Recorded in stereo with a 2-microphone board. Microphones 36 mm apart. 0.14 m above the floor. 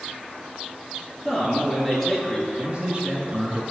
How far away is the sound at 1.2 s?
About 3 m.